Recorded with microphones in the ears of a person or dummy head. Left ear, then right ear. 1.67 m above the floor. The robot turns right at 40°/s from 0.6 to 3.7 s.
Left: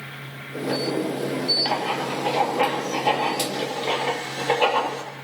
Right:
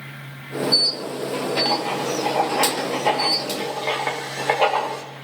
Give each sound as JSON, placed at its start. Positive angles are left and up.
{"t": 1.6, "sound": "writing", "side_deg": 0, "distance_m": 1.5}